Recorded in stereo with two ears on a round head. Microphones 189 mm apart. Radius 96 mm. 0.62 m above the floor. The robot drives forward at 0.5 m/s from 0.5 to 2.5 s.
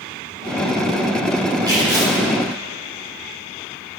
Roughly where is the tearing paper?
Centre.